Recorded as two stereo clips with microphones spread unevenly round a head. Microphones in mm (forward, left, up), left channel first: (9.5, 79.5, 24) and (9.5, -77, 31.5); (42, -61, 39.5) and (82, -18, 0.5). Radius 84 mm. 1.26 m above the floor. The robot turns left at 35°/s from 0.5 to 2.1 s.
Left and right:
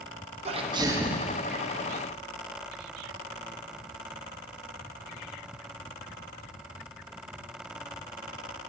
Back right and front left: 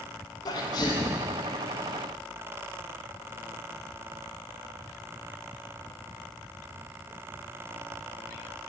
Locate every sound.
0.5 s a sneeze: 145° right, 1.0 m; by 1.4 s 175° right, 1.0 m